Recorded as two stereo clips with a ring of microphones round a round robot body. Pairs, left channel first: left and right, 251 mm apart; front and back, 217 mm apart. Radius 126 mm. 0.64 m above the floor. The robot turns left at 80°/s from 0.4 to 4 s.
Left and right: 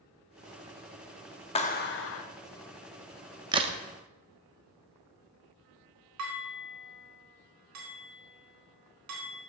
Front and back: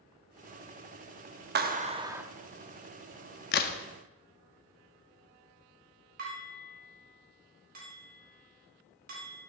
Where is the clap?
150° left, 0.8 m; by 2.2 s 100° left, 0.8 m.